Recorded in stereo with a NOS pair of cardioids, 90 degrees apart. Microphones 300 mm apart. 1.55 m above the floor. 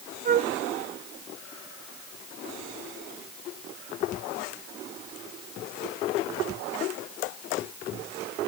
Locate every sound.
0.2 s a flute: 30° right, 0.7 m